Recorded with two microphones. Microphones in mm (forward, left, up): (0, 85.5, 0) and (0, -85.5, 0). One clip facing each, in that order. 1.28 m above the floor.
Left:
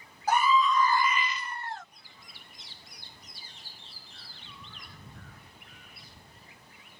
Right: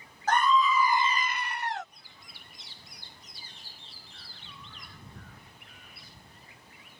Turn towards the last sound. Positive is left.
turn(degrees=-70)  # may be behind; listen again after turning